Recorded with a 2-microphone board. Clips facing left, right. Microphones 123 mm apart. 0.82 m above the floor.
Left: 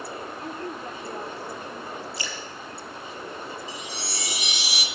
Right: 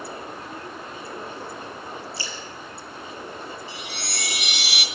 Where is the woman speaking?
50° left (ahead or behind), 2.5 m.